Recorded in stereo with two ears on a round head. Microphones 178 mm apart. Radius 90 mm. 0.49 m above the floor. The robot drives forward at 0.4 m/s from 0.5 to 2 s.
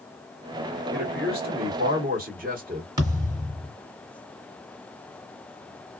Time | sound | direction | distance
0.9 | a man speaking | 50° right (ahead or behind) | 1.5 m
3.0 | a thud | 20° right (ahead or behind) | 1.5 m